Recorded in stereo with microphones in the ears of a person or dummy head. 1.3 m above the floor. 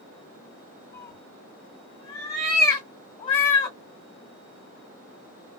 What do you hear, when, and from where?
0.9 s a cat meowing: 25° left (ahead or behind), 1.3 m